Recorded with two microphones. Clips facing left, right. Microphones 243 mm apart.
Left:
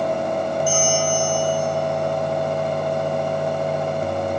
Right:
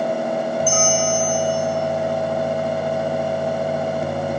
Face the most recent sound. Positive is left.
turn(degrees=10)  # may be behind; listen again after turning